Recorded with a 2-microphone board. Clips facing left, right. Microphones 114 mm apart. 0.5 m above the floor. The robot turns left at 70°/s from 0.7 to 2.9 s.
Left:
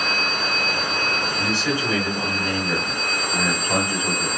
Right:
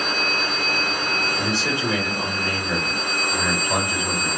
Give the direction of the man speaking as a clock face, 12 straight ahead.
4 o'clock.